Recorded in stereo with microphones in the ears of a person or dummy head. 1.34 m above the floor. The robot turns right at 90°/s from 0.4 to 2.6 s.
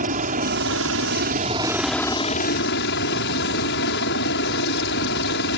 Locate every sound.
0.0 s a helicopter: 135° right; by 5.6 s 65° left